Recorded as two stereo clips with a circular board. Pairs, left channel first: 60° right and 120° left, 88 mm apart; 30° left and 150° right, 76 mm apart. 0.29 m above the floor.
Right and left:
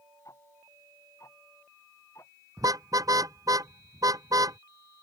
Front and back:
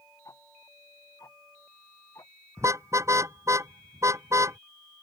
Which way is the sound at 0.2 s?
10° right.